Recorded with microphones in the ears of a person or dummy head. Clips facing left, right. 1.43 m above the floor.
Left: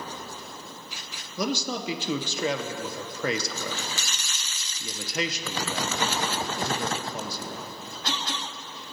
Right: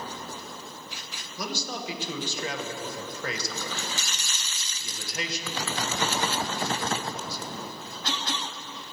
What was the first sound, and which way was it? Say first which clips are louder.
A man speaking: left 6 dB; 60° left (ahead or behind).